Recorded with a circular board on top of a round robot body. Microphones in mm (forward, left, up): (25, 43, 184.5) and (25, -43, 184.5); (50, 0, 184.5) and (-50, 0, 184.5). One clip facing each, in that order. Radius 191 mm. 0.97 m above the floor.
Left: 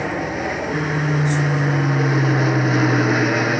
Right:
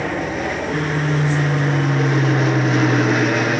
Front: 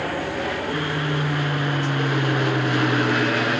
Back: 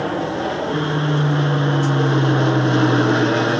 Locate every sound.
0.0 s an aircraft: 175° left